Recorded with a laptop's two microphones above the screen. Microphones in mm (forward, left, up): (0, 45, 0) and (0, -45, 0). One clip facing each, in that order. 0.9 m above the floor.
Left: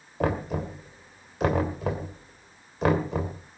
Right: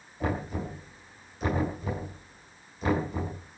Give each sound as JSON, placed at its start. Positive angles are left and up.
{"t": 0.2, "sound": "knocking", "side_deg": 80, "distance_m": 3.0}